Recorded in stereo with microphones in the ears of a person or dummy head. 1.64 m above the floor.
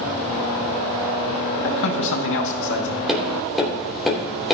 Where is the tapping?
Centre (ahead or behind), 3 m.